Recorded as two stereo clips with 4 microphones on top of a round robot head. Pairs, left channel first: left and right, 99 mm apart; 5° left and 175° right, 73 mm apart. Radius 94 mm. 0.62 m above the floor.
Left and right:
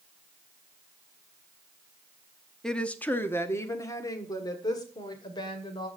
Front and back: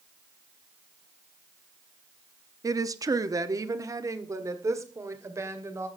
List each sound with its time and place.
2.6 s a woman speaking: 175° left, 0.9 m; by 5.9 s 135° left, 2.5 m